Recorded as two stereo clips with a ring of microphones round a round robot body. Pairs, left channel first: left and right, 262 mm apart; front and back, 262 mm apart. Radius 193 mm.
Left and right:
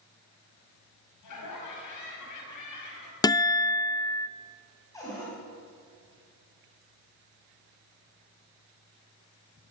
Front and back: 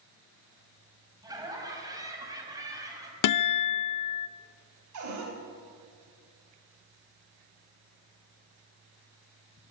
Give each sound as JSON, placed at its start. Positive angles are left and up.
{"t": 1.2, "sound": "laughter", "azimuth_deg": 105, "distance_m": 5.0}
{"t": 3.2, "sound": "a guitar", "azimuth_deg": 10, "distance_m": 0.5}
{"t": 4.9, "sound": "a cupboard door", "azimuth_deg": 170, "distance_m": 3.5}